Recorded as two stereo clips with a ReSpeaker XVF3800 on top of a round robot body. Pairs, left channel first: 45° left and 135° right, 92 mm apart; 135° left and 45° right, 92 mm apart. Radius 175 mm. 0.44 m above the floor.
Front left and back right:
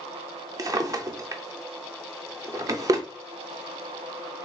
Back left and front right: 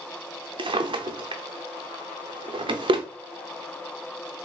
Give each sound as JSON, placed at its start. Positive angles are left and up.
{"t": 0.6, "sound": "a drawer", "azimuth_deg": -80, "distance_m": 0.5}